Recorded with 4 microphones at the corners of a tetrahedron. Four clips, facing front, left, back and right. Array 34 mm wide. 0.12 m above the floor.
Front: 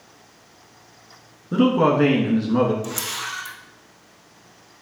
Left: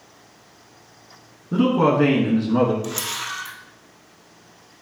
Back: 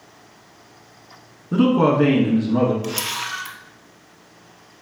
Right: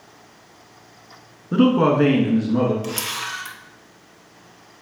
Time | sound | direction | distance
1.5 | a man speaking | 85° right | 1.1 m
2.8 | a camera shutter | 150° right | 1.4 m